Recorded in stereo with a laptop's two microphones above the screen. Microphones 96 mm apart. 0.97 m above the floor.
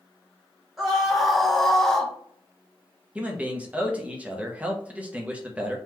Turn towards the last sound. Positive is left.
turn(degrees=-15)  # may be behind; listen again after turning